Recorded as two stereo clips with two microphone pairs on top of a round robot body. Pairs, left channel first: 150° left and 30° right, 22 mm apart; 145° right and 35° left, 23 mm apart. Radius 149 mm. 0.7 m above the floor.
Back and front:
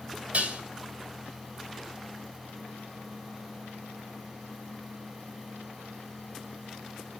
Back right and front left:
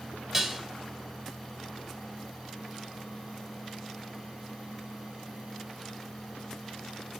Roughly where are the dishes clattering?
Ahead right.